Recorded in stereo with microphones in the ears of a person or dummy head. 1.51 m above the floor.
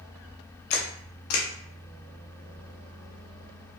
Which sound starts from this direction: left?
A camera shutter, at 0.7 s.